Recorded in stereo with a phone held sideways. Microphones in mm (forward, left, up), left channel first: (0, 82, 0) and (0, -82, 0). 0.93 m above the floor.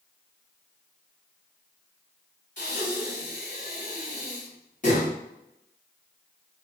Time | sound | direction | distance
2.6 | breathing | 50° left (ahead or behind) | 1.0 m